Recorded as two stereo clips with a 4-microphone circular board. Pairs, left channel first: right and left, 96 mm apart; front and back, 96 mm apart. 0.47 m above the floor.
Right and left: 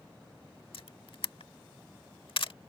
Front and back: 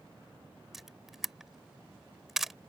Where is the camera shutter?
95° right.